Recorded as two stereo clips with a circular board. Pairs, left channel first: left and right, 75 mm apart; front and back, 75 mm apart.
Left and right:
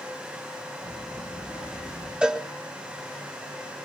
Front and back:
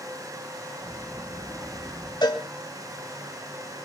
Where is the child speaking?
85° left, 5 m; by 2.1 s 75° left, 5.5 m.